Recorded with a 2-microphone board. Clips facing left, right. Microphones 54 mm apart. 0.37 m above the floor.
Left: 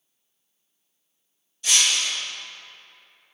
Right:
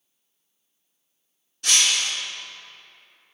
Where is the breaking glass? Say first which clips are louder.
Even; 70° right (ahead or behind), 2.5 m.